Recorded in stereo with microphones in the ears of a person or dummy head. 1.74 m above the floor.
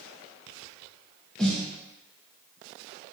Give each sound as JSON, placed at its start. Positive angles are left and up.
{"t": 1.4, "sound": "a snare drum", "side_deg": 5, "distance_m": 0.7}